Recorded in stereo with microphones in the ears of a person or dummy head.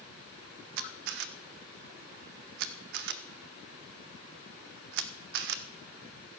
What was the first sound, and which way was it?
A camera shutter, 60° right (ahead or behind).